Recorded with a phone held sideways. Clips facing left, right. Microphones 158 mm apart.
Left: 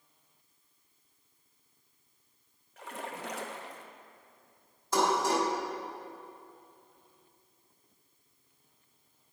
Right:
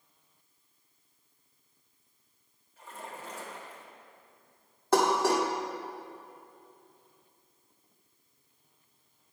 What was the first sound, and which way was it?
A splash, 70° left (ahead or behind).